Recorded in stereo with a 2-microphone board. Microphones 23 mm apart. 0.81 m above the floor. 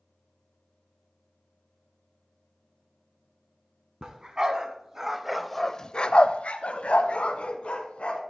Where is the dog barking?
35° right (ahead or behind), 2 m; by 8.2 s 60° left (ahead or behind), 2.5 m.